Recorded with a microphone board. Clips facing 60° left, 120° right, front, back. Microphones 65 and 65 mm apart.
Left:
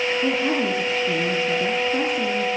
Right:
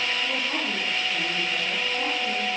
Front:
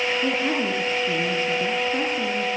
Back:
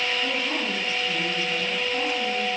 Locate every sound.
0.2 s a woman speaking: 45° left, 5 m